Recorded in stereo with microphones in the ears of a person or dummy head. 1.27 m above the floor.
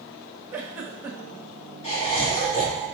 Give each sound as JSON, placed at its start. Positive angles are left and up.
{"t": 0.5, "sound": "a giggle", "side_deg": -10, "distance_m": 0.8}
{"t": 1.8, "sound": "laughter", "side_deg": 35, "distance_m": 2.5}